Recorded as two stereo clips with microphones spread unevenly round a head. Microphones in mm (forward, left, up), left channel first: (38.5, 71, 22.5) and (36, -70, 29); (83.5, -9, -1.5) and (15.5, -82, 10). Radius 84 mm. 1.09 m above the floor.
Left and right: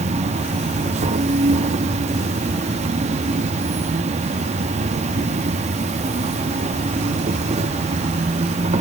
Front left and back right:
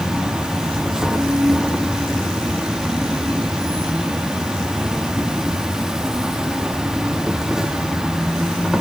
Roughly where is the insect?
Ahead right.